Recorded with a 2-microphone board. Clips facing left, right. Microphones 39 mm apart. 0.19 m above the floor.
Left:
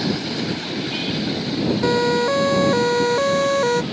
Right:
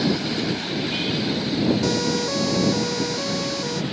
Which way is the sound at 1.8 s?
30° left (ahead or behind).